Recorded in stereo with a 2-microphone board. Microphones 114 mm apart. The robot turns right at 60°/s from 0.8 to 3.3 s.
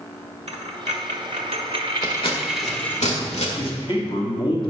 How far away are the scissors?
About 1.6 m.